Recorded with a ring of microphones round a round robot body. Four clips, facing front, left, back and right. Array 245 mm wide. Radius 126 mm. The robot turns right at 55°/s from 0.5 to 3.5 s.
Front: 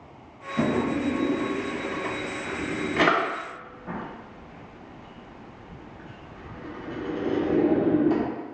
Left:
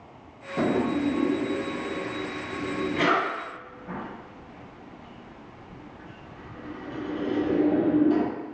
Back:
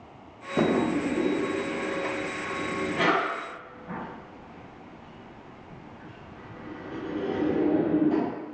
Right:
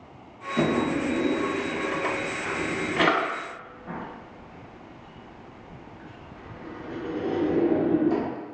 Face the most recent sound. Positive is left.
turn(degrees=-10)